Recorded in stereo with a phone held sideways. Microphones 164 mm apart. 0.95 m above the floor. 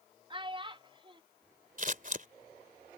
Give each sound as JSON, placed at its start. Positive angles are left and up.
{"t": 0.3, "sound": "a child speaking", "side_deg": -30}
{"t": 1.8, "sound": "scissors", "side_deg": -55}